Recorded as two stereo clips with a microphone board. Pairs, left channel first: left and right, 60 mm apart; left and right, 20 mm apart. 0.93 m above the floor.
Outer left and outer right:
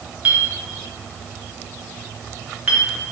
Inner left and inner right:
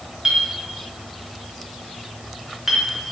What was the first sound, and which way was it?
A clink, 25° right (ahead or behind).